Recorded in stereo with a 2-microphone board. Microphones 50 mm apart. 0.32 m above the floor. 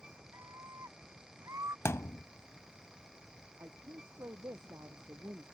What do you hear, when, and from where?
0.3 s a scream: 80° right
1.9 s a thud: 65° left (ahead or behind)
3.6 s a woman speaking: 75° right (ahead or behind)